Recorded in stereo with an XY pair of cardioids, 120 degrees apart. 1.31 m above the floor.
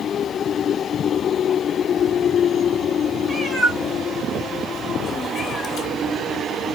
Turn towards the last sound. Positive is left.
turn(degrees=60)